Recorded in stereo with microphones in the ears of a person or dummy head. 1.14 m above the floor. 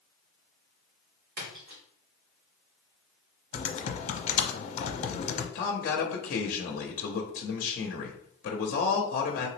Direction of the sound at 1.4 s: 50° right (ahead or behind).